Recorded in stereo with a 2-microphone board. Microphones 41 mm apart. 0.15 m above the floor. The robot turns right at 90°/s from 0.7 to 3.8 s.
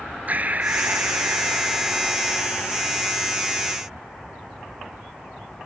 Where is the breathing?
135° right, 0.9 m; by 3.8 s 145° left, 0.9 m.